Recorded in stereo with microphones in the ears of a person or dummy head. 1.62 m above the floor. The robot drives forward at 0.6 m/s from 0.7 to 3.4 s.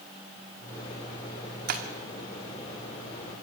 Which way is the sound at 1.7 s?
50° right (ahead or behind).